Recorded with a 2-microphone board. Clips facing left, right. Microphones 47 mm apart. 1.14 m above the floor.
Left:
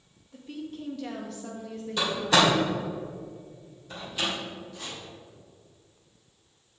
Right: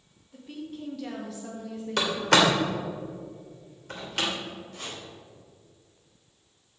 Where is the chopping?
55° right (ahead or behind), 3.5 m.